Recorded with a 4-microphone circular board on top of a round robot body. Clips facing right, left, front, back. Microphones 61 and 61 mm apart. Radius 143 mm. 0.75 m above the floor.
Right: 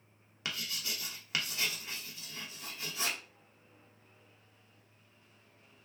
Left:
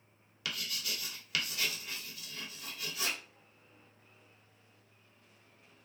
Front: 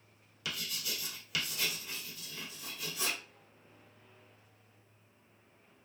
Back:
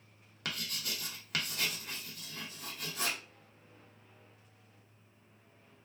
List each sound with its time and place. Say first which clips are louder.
0.5 s writing: even, back 1 dB; 150° right, 0.9 m